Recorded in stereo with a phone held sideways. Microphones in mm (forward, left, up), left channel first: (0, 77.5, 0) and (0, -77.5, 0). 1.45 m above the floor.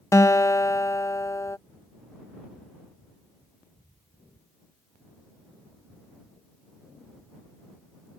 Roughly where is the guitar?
Centre.